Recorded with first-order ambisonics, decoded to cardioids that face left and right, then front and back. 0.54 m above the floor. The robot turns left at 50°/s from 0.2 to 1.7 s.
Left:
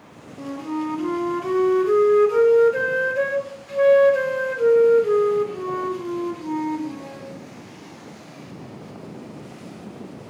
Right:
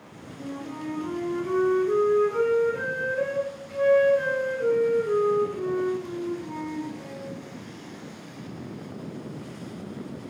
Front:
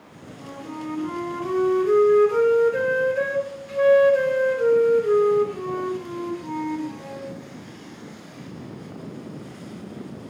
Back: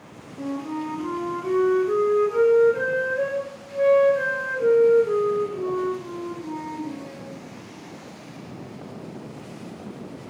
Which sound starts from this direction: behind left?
A flute, at 0.4 s.